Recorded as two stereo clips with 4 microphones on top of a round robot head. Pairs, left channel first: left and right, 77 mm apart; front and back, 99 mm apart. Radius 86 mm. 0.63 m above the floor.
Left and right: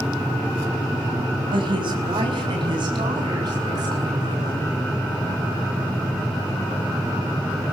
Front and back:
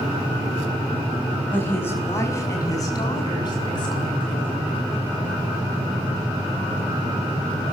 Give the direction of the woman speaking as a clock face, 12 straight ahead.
2 o'clock.